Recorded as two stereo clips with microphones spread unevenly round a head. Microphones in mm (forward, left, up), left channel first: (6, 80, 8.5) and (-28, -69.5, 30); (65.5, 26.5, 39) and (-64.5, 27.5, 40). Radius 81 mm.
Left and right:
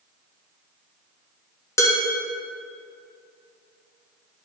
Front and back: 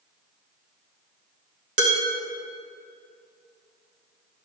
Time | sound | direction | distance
1.8 | dishes clattering | 150° left | 2 m